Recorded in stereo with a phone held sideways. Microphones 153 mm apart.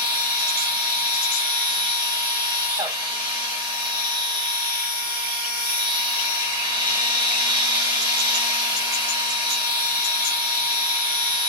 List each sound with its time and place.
0.0 s a machine running: 35° right (ahead or behind), 1.7 m